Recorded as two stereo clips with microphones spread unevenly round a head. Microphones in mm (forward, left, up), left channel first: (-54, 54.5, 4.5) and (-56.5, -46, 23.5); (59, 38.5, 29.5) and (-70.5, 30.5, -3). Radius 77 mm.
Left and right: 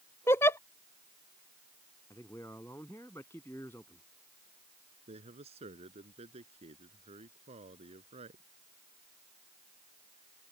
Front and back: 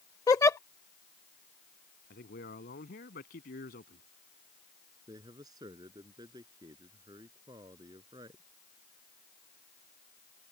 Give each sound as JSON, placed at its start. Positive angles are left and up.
{"t": 0.3, "sound": "a giggle", "azimuth_deg": 10}
{"t": 2.1, "sound": "a man speaking", "azimuth_deg": 10}
{"t": 5.1, "sound": "a man speaking", "azimuth_deg": -110}